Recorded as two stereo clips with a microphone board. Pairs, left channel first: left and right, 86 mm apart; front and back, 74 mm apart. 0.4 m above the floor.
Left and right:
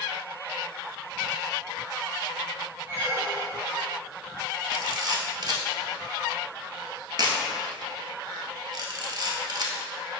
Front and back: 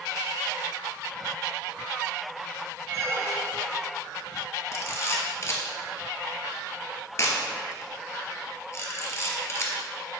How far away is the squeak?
About 1.2 m.